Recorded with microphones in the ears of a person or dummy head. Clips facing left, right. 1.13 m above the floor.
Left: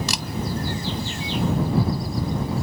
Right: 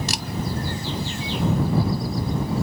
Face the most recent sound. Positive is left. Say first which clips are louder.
# even
turn(degrees=80)